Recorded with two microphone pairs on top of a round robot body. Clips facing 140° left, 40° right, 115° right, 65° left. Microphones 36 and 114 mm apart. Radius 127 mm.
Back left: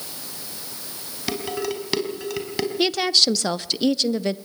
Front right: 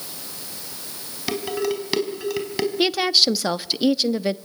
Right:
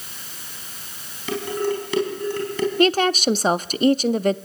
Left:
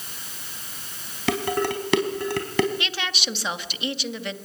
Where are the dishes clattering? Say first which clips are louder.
Front right 2 dB, even; 45° left, 4 m.